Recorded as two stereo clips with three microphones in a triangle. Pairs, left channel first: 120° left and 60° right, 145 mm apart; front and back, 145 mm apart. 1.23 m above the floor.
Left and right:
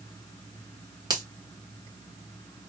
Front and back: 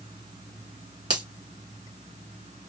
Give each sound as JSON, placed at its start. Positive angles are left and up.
{"t": 1.1, "sound": "a finger snap", "azimuth_deg": -120, "distance_m": 1.4}